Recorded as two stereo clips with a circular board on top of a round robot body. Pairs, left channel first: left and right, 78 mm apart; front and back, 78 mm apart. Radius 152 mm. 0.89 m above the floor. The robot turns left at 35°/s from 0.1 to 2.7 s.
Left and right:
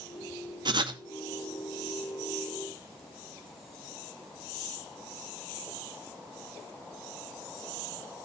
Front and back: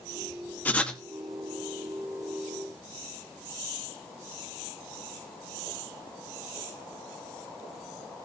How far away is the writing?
About 1.5 m.